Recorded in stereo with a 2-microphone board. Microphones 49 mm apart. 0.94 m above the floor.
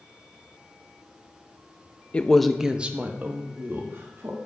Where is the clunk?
I don't hear a clunk.